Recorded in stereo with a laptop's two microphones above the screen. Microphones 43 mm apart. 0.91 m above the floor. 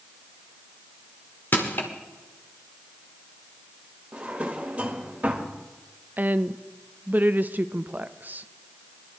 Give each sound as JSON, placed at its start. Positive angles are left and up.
{"t": 1.5, "sound": "crushing", "side_deg": 50, "distance_m": 1.8}
{"t": 4.1, "sound": "a drawer", "side_deg": -30, "distance_m": 1.5}
{"t": 6.2, "sound": "a woman speaking", "side_deg": -40, "distance_m": 0.5}